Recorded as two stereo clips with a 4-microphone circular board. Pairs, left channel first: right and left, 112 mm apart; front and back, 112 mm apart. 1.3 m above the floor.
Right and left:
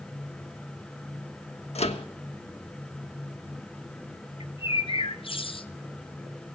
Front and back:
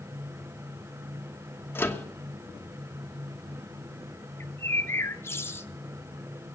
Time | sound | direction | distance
1.8 | a microwave | 70° right | 1.2 m
4.4 | a bird | 65° right | 0.7 m